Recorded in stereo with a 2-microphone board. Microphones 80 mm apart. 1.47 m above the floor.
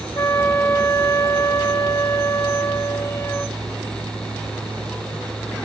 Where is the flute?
40° left (ahead or behind), 1.2 m.